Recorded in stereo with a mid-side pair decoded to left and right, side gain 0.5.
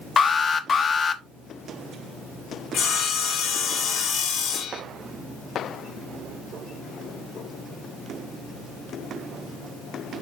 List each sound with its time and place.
0.2 s an alarm: 35° left, 1.1 m
2.7 s sawing: 60° left, 2.5 m